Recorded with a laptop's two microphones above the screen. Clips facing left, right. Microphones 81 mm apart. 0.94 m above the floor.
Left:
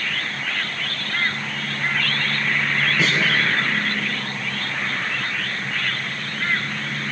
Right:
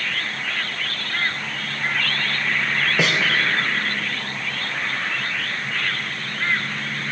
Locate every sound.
3.0 s a snare drum: 80° right, 3 m